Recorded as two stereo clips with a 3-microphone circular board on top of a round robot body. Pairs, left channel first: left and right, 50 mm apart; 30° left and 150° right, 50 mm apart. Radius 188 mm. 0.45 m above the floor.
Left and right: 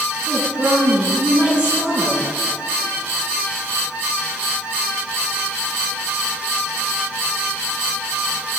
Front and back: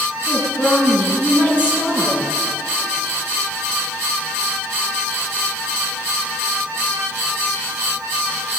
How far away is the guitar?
I don't hear a guitar.